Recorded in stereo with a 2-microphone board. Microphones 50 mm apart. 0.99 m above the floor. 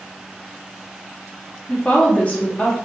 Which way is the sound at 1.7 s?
25° left (ahead or behind).